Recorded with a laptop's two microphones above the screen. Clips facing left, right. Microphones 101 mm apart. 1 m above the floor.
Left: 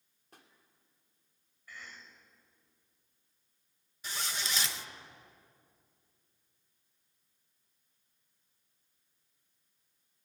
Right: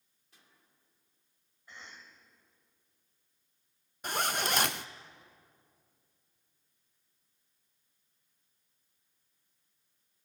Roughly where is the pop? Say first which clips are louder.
Left 7 dB; left.